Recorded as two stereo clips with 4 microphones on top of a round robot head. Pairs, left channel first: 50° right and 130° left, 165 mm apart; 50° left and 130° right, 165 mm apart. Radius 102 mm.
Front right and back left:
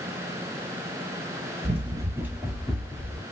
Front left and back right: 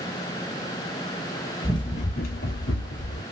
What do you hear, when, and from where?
1.6 s running footsteps: 110° left, 0.5 m; by 3.2 s 25° left, 0.9 m